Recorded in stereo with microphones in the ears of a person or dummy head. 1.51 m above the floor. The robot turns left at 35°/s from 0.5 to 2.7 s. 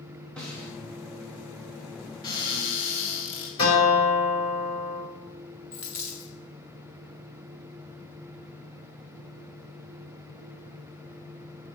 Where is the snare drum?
5° left (ahead or behind), 1.7 m; by 0.7 s 15° left (ahead or behind), 1.7 m.